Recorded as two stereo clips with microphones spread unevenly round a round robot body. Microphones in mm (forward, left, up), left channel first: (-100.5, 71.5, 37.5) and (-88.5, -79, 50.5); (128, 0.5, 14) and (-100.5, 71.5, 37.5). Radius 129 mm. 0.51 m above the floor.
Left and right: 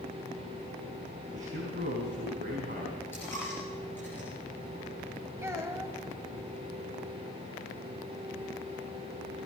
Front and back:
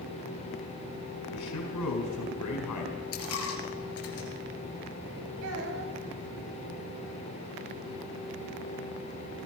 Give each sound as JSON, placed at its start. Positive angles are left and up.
{"t": 1.3, "sound": "a man speaking", "azimuth_deg": -30, "distance_m": 4.5}
{"t": 3.1, "sound": "a dropped coin", "azimuth_deg": 10, "distance_m": 3.0}
{"t": 5.4, "sound": "a child speaking", "azimuth_deg": -160, "distance_m": 3.0}